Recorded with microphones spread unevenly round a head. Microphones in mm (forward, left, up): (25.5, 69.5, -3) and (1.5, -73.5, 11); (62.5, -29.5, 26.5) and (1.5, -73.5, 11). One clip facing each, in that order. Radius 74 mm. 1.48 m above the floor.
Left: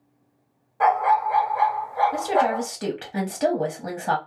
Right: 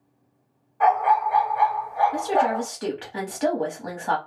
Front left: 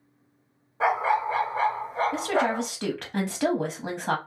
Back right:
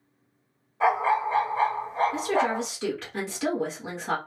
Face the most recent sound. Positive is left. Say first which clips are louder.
# even, even
turn(degrees=30)